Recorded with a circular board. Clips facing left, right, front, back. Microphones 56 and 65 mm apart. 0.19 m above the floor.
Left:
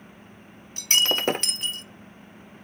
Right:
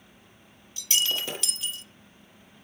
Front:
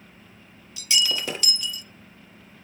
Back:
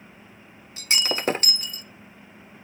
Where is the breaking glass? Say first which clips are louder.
Left 5 dB, even; 130° left, 0.6 m.